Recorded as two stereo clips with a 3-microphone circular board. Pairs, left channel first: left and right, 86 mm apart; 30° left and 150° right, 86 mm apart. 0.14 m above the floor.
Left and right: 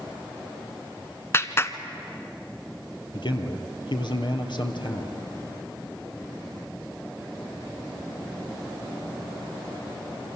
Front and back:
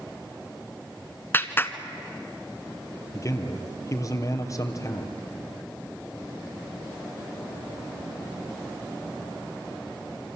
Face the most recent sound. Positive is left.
turn(degrees=80)